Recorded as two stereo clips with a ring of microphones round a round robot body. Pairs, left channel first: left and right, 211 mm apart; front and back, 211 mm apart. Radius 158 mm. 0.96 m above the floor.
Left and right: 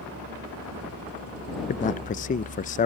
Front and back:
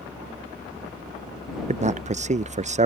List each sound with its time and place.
0.0 s a vehicle: 95° right; by 2.9 s 90° right
1.7 s a man speaking: 130° left